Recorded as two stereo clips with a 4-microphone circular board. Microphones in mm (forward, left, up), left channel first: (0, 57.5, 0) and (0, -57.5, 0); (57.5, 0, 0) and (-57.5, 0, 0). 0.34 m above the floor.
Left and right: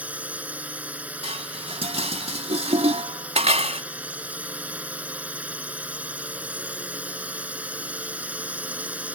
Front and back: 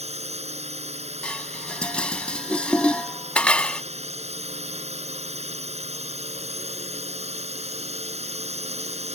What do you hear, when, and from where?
0.0 s a drone: 165° right
1.2 s dishes clattering: 80° right